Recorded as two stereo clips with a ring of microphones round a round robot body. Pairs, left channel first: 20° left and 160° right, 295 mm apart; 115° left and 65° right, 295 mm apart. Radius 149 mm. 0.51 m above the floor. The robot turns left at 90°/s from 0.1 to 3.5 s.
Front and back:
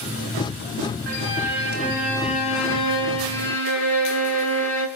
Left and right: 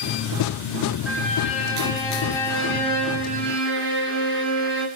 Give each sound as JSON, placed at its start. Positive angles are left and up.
{"t": 1.1, "sound": "a violin", "azimuth_deg": -155, "distance_m": 6.5}